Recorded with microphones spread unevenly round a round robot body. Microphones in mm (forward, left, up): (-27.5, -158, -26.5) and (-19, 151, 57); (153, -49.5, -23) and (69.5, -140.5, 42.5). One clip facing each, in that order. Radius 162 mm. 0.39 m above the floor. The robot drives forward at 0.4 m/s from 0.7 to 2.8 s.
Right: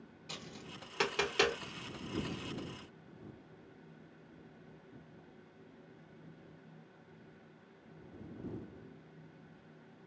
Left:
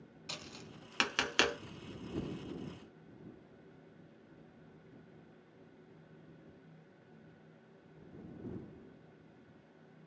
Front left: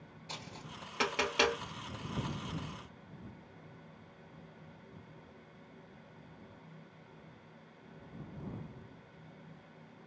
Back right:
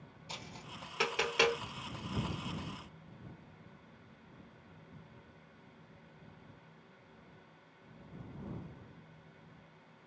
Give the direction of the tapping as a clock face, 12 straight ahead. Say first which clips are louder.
Right 2 dB, front left 1 dB; 8 o'clock.